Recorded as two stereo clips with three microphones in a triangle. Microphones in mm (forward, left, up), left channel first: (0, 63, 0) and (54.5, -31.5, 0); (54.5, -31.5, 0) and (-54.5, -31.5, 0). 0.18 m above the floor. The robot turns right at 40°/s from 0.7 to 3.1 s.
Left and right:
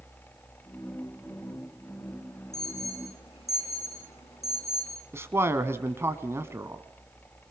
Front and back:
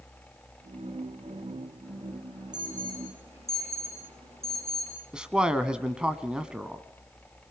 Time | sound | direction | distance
2.5 | an alarm | 125° left | 8.5 m
5.1 | a man speaking | 105° right | 1.3 m